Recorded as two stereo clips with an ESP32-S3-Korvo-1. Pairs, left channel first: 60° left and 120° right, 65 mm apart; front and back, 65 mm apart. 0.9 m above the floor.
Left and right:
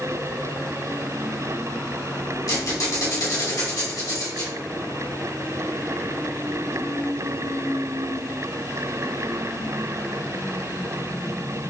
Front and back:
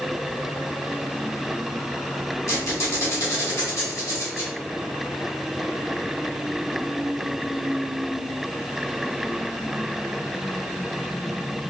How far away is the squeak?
About 1.9 m.